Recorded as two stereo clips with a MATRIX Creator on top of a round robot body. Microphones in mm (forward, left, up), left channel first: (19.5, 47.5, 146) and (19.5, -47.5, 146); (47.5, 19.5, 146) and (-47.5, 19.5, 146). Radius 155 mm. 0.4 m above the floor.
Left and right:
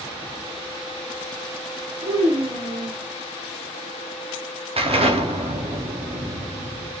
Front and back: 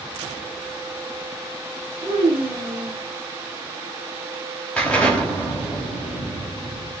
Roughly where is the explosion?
Right.